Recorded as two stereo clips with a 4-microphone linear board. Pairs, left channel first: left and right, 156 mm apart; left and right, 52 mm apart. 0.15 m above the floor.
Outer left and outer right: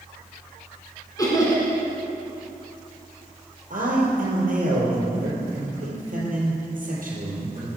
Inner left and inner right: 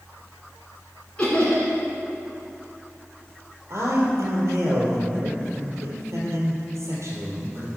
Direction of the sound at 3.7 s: 60° right (ahead or behind).